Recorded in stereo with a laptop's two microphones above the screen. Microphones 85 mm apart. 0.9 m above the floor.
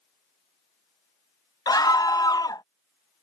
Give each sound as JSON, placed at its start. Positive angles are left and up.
{"t": 1.7, "sound": "a scream", "side_deg": 50}